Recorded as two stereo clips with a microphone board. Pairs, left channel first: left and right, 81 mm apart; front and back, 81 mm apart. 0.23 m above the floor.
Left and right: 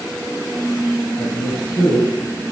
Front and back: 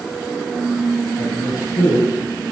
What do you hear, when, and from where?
1.2 s a man speaking: 50° left, 4 m